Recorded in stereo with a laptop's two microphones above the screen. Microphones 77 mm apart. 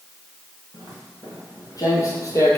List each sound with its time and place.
0.7 s footsteps: 45° left (ahead or behind), 2.5 m; by 2.6 s 35° left (ahead or behind), 1.2 m